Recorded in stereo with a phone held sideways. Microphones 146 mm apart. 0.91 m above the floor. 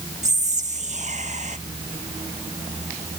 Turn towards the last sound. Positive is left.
turn(degrees=-50)  # may be behind; listen again after turning